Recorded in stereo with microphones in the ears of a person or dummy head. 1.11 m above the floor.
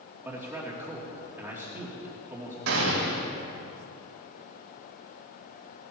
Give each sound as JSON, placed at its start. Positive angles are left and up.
{"t": 0.2, "sound": "a man speaking", "side_deg": -10, "distance_m": 2.5}
{"t": 2.7, "sound": "a gunshot", "side_deg": -85, "distance_m": 3.5}